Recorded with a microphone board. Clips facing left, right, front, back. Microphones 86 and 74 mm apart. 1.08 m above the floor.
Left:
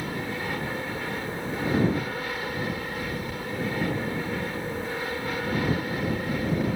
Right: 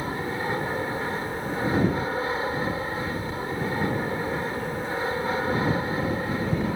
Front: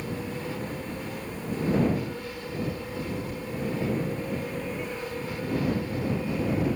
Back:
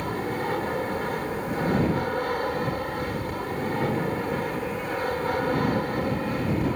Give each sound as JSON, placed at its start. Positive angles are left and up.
{"t": 0.0, "sound": "an aircraft", "azimuth_deg": -150}